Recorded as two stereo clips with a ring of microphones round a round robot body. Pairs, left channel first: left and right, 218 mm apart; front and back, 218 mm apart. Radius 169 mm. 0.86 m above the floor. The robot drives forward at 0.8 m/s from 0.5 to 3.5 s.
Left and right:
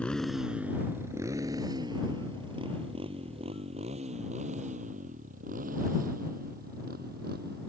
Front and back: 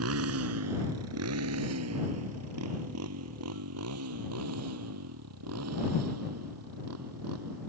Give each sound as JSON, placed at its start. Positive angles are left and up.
{"t": 0.0, "sound": "a motorcycle", "azimuth_deg": 175}